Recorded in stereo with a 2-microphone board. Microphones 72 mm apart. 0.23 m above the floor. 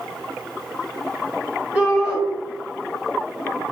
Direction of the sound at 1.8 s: 15° right (ahead or behind).